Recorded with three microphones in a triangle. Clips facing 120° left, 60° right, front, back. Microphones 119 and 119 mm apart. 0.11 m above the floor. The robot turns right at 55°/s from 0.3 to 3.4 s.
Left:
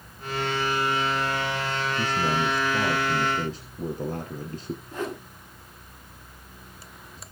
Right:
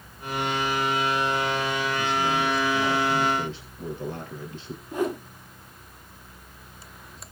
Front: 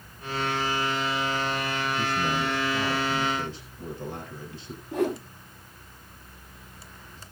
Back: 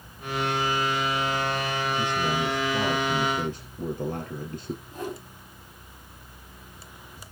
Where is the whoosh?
15° left, 2.5 m.